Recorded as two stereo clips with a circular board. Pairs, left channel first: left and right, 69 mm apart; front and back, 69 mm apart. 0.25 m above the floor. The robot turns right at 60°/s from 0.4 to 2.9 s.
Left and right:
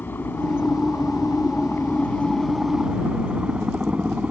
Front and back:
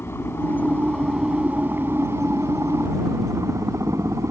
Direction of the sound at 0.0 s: 40° left.